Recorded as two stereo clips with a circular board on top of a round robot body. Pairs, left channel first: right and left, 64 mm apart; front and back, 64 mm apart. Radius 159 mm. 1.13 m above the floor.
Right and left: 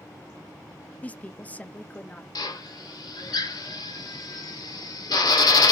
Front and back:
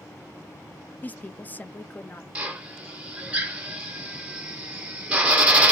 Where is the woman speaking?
40° right, 0.5 m.